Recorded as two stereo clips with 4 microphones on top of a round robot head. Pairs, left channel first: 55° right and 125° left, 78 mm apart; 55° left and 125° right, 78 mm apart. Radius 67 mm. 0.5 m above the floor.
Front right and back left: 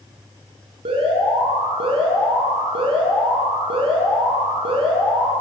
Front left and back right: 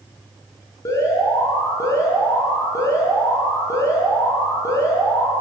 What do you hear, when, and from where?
0.8 s an alarm: 110° left, 9 m